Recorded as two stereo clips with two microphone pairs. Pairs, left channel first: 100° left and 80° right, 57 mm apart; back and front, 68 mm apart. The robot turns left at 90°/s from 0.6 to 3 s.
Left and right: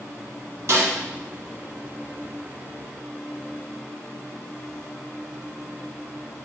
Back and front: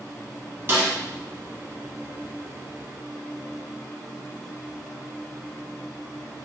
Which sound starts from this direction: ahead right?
A snare drum, at 0.7 s.